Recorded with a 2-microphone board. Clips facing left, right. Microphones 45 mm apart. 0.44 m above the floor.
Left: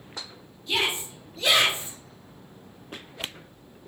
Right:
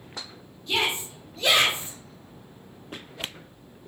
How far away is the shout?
About 0.9 m.